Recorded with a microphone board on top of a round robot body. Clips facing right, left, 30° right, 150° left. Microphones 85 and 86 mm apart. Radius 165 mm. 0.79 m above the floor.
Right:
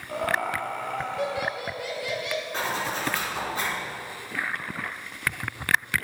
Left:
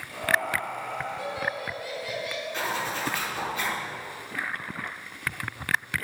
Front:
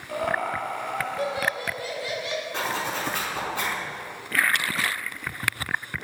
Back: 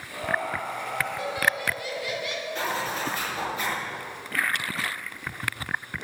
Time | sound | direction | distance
0.1 | laughter | 50° right | 3 m
2.5 | a zipper | 30° right | 5 m